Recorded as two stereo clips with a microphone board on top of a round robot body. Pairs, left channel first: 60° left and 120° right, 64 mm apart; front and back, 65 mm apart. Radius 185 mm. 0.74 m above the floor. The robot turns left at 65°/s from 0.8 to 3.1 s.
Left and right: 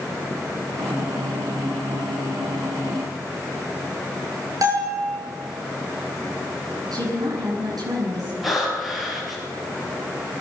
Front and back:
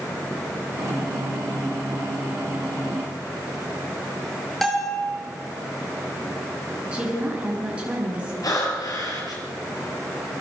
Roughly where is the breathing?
Ahead right.